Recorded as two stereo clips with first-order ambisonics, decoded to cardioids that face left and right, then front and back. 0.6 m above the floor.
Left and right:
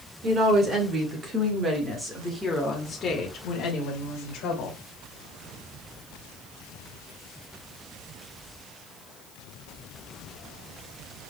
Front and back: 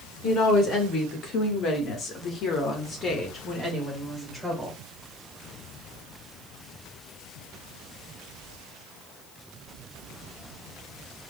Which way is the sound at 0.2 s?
45° right.